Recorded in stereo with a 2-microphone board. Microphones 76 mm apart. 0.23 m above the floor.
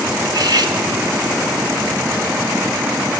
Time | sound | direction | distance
0.2 | cutlery clinking | 65° right (ahead or behind) | 1.5 m